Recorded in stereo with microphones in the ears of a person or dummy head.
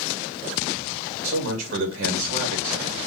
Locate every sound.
1.2 s a man speaking: 70° right (ahead or behind), 3 m